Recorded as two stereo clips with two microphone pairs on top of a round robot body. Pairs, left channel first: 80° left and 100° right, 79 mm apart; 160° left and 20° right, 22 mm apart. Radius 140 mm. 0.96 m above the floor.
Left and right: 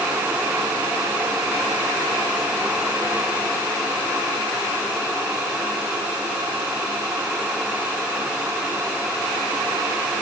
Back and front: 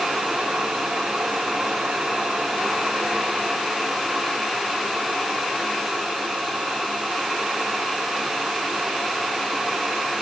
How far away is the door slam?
No door slam in this recording.